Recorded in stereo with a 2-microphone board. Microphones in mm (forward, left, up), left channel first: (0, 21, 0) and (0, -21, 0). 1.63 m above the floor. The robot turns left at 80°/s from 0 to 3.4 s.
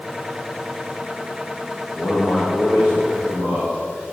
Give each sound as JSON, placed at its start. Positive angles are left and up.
{"t": 2.0, "sound": "a man speaking", "azimuth_deg": 45, "distance_m": 3.5}